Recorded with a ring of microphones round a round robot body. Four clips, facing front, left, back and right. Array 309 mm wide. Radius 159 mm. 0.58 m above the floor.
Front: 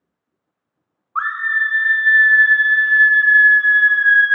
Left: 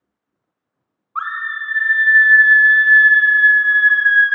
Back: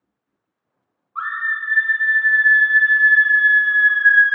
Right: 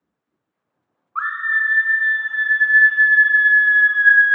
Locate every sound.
1.1 s a scream: 15° left, 1.5 m; by 4.3 s 95° left, 1.4 m